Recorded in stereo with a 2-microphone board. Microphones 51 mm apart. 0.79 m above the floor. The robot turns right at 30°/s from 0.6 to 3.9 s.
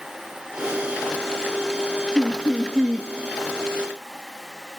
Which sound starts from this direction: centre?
Laughter, at 2.1 s.